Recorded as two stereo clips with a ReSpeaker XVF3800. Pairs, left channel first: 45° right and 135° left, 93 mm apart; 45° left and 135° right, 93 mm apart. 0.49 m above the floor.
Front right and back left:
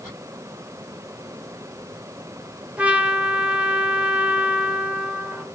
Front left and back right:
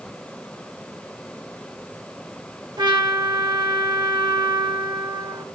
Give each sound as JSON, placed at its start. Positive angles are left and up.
{"t": 2.8, "sound": "a trumpet", "azimuth_deg": -150, "distance_m": 1.7}